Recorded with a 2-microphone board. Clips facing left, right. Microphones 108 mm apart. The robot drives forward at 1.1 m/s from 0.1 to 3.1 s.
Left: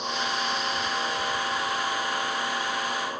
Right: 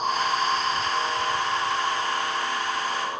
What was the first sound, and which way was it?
An insect, 40° right (ahead or behind).